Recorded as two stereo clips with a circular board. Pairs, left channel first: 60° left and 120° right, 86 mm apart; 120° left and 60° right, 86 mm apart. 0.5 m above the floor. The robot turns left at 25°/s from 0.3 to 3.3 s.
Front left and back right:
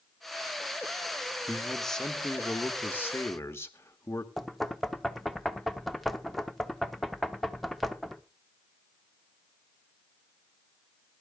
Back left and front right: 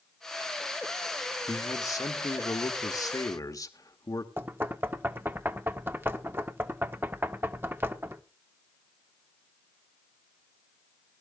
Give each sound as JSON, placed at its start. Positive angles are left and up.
{"t": 1.5, "sound": "a man speaking", "azimuth_deg": 155, "distance_m": 1.5}
{"t": 4.4, "sound": "knocking", "azimuth_deg": -30, "distance_m": 0.8}